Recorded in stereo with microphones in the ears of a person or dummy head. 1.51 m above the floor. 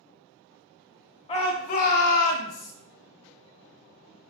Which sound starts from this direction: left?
A shout, at 1.3 s.